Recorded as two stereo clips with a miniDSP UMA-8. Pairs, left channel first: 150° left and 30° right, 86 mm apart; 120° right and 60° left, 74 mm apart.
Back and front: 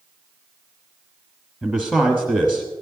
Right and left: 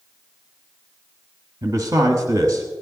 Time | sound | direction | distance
1.6 | a man speaking | 70° left | 1.3 m